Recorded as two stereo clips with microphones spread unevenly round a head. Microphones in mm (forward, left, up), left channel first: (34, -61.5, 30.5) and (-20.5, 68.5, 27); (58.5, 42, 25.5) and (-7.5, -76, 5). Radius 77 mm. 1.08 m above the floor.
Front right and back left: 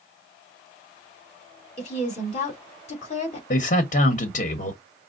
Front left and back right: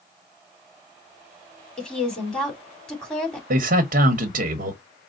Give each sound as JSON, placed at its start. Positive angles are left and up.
{"t": 1.8, "sound": "a woman speaking", "azimuth_deg": -25, "distance_m": 2.5}
{"t": 3.5, "sound": "a man speaking", "azimuth_deg": -105, "distance_m": 1.0}